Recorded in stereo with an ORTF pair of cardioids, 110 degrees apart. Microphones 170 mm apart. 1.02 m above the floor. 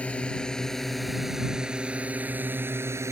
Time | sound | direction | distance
0.0 | a drone | 5° left | ?